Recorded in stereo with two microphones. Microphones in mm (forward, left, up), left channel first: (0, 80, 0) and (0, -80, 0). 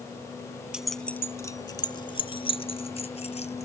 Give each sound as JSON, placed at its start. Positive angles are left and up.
{"t": 0.7, "sound": "keys jangling", "side_deg": -5}